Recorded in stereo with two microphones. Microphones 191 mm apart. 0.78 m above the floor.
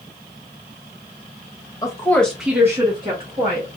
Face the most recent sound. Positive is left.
turn(degrees=-40)  # may be behind; listen again after turning